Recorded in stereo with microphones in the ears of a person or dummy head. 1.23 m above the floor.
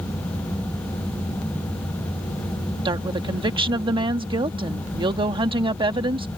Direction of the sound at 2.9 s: 25° right (ahead or behind).